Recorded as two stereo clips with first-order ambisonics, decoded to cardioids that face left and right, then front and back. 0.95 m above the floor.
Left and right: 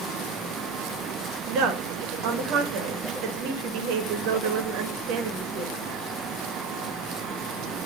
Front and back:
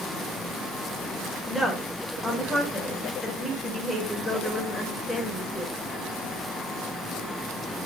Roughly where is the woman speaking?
Right.